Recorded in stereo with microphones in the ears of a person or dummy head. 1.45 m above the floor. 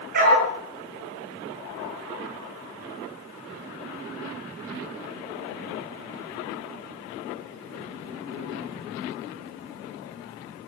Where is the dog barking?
55° right (ahead or behind), 9 m.